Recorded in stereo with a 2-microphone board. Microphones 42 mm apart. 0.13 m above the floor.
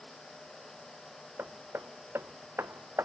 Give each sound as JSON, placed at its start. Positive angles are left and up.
{"t": 1.4, "sound": "hammering", "side_deg": -75}